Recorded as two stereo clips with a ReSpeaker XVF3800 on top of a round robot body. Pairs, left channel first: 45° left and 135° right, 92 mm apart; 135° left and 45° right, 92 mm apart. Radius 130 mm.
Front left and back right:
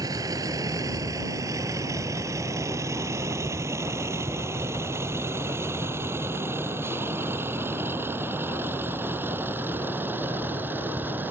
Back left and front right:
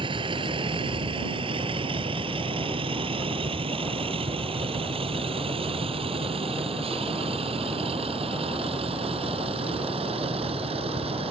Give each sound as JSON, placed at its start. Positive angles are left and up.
{"t": 0.0, "sound": "a vehicle", "azimuth_deg": -80}